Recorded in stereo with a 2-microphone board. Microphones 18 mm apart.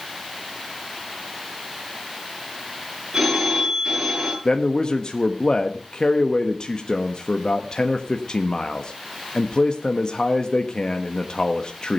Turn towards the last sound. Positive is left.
turn(degrees=45)  # may be behind; listen again after turning